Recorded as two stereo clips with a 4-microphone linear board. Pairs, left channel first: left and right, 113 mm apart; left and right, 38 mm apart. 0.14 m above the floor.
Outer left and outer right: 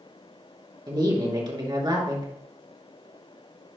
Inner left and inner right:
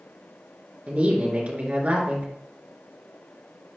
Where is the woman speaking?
40° right (ahead or behind), 2.5 m.